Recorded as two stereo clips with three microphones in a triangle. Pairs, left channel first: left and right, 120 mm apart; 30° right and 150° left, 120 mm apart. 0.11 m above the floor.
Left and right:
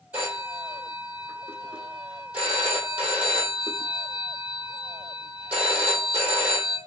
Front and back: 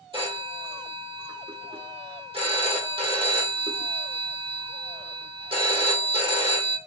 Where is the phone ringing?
165° right, 2.0 m.